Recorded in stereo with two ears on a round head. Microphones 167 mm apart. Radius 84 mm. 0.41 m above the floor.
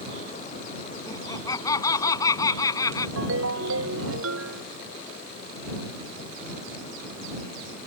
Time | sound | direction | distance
1.1 | laughter | 20° left (ahead or behind) | ?
3.2 | a ringtone | 75° right (ahead or behind) | ?